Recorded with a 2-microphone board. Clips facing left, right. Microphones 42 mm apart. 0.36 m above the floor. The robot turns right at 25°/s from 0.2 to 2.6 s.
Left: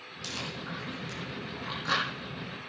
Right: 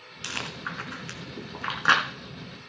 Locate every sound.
0.2 s chewing: 55° right (ahead or behind), 2 m; by 2.0 s 75° right (ahead or behind), 2 m